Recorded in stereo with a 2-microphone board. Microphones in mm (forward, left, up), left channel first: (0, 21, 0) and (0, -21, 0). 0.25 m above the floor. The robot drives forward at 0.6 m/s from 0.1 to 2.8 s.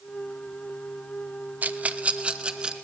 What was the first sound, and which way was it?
A rattle, 45° right (ahead or behind).